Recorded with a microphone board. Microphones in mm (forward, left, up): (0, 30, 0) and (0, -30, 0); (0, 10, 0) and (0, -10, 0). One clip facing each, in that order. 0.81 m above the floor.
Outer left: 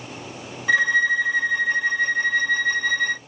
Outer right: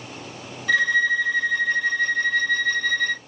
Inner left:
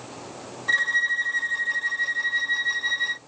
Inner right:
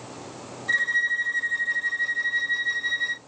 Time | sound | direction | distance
0.7 | a violin | 20° left (ahead or behind) | 1.1 m